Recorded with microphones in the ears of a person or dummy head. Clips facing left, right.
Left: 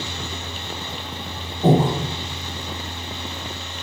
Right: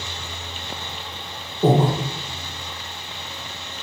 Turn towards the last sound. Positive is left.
turn(degrees=-35)  # may be behind; listen again after turning